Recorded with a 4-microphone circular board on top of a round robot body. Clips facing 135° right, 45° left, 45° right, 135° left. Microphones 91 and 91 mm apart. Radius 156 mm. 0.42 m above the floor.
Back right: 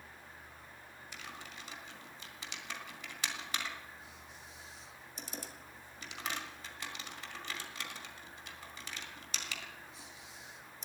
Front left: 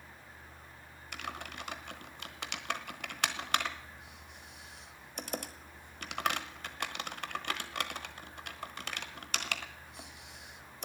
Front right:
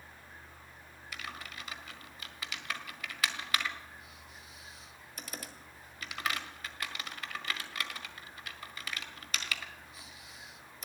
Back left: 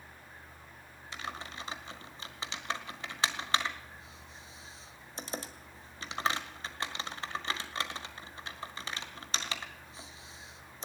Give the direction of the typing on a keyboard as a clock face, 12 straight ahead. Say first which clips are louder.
Front left 8 dB, back left 3 dB; 10 o'clock.